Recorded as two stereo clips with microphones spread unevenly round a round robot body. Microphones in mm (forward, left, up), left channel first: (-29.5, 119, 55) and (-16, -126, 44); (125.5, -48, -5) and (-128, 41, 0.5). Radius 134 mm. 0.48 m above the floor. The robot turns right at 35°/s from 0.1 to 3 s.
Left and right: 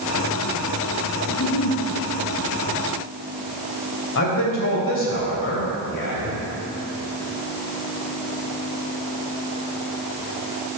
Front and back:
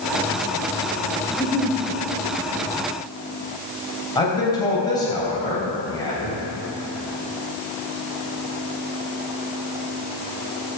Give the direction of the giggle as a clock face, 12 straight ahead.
10 o'clock.